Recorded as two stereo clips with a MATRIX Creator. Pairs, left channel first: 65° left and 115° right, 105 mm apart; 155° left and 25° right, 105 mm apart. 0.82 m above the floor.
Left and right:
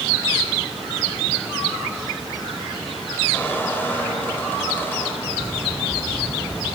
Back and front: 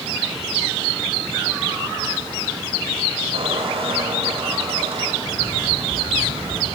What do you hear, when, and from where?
3.3 s a squeak: 5° right, 3 m
5.2 s a bird: straight ahead, 3 m